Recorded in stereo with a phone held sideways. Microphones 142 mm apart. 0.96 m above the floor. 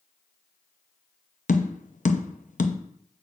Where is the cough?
I don't hear a cough.